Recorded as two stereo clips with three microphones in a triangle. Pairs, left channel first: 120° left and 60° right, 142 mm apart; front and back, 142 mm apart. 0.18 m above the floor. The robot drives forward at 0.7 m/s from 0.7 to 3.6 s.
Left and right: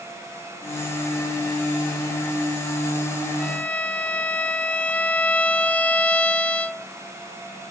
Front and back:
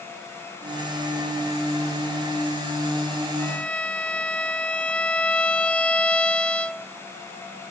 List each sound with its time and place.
3.4 s a violin: 40° left, 0.8 m; by 6.9 s 60° left, 0.7 m